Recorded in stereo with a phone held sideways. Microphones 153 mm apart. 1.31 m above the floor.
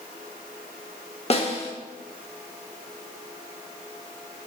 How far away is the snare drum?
About 1.1 m.